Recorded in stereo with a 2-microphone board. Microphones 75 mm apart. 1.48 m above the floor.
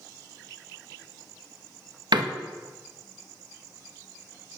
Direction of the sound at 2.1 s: 80° right.